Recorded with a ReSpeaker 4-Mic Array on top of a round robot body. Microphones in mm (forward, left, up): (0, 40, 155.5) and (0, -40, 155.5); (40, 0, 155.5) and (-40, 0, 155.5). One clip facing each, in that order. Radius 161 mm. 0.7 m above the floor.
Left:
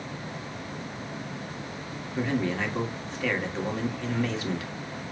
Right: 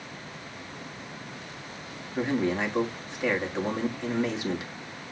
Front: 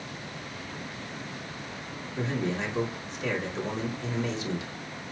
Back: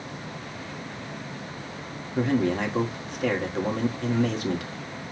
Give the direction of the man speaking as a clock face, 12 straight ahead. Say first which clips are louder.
Right 1 dB, back 7 dB; 5 o'clock.